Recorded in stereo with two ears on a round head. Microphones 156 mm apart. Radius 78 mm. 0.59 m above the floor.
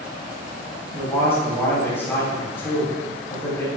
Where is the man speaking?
15° left (ahead or behind), 4 m.